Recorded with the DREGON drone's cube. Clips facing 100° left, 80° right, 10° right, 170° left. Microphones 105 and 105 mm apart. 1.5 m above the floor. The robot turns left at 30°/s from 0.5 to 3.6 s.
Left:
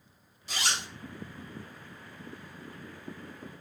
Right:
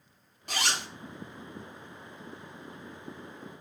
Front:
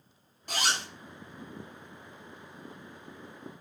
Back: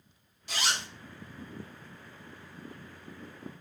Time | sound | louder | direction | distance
0.5 | a zipper | right 2 dB, front 2 dB | 50° right | 0.9 m